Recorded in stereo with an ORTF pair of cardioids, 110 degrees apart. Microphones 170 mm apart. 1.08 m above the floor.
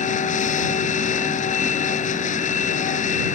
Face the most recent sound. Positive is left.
turn(degrees=45)